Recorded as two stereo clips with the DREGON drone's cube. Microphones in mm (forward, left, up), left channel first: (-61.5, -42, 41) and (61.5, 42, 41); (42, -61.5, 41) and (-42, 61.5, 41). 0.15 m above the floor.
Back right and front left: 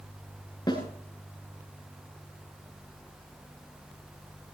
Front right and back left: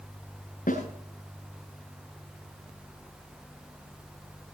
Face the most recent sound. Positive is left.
turn(degrees=-90)